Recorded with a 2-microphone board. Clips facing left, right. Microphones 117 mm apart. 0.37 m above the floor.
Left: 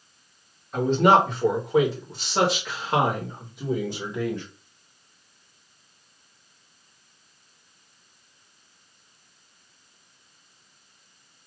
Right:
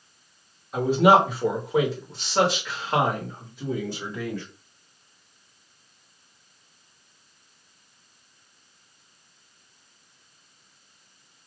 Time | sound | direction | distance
0.7 | a man speaking | 10° right (ahead or behind) | 1.4 m